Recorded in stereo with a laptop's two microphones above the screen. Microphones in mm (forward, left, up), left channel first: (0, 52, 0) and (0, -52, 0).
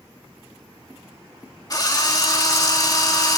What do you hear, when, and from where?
1.7 s a drill: 40° left (ahead or behind), 2 m